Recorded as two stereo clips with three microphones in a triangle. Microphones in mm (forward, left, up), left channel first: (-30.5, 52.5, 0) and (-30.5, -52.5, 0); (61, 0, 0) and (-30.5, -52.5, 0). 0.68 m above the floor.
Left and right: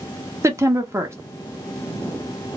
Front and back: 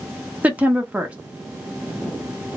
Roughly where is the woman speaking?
Right.